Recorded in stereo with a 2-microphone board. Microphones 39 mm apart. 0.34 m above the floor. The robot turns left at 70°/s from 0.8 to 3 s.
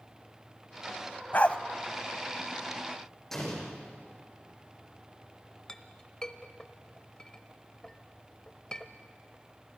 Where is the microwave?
No microwave in this recording.